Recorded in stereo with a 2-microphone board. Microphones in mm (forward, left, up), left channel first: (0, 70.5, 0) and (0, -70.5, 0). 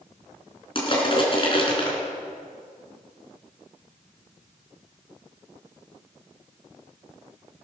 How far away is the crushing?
About 3.5 m.